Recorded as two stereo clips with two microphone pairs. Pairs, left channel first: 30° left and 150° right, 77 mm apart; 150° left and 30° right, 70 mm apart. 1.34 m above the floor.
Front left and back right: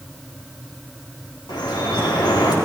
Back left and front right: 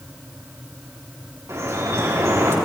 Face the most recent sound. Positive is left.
turn(degrees=15)